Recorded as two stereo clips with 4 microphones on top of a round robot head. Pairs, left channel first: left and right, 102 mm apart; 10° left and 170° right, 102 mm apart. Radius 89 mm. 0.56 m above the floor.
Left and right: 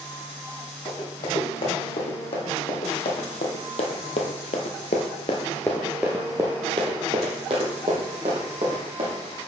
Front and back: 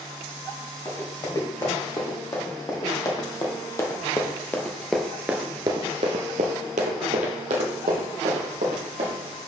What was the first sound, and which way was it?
Running footsteps, 60° left.